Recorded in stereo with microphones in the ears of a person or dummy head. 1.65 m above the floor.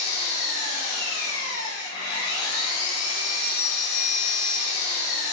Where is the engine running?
60° left (ahead or behind), 1.9 m.